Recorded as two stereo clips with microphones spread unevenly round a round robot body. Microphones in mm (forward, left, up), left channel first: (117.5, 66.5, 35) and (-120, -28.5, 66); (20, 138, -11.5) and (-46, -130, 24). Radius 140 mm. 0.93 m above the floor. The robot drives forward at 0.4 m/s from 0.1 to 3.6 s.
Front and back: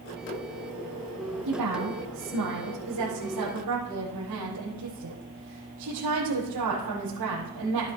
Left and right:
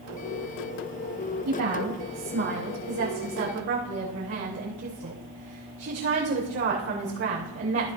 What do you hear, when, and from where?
1.4 s a woman speaking: 145° right, 6 m; by 8.0 s 150° right, 6.5 m